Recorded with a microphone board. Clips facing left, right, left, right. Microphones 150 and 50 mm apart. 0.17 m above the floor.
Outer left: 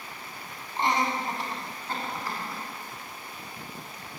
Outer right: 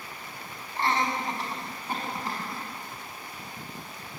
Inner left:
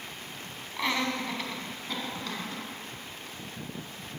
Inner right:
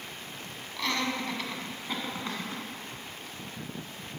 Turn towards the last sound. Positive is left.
turn(degrees=-30)  # may be behind; listen again after turning